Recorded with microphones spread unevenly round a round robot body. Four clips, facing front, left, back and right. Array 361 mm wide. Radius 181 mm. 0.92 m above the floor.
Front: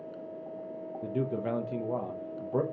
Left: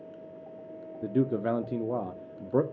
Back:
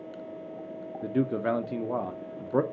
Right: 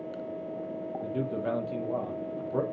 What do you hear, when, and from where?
1.0 s a man speaking: 115° left, 0.7 m